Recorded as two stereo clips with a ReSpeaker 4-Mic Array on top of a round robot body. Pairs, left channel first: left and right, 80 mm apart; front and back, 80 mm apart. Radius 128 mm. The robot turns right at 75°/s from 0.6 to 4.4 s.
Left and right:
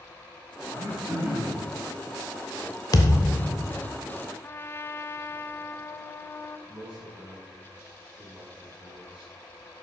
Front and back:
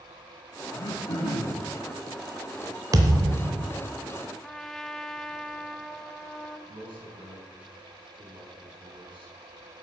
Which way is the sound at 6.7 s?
160° right.